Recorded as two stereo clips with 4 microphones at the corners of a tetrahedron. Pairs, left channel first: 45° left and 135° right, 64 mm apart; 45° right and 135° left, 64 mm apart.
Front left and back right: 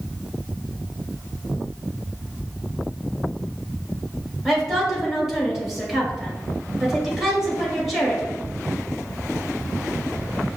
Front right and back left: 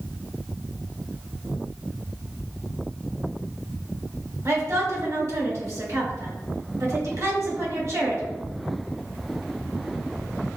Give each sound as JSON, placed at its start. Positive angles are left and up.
{"t": 4.5, "sound": "a woman speaking", "azimuth_deg": 140, "distance_m": 1.9}